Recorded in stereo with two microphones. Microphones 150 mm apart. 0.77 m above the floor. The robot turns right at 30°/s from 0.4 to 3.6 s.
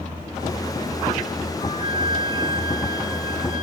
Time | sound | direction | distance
1.6 | a flute | 55° left | 1.3 m